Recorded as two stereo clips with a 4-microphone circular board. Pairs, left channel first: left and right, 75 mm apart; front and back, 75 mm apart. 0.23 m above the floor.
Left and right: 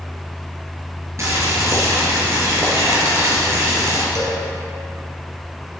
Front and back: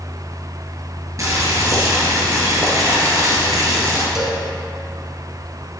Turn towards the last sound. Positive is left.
turn(degrees=100)